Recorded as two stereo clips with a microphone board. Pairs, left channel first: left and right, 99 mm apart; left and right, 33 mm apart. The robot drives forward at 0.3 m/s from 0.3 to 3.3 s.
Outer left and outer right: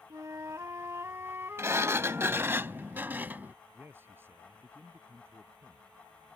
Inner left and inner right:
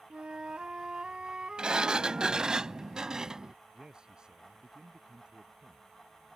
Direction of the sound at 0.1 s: 35° right (ahead or behind).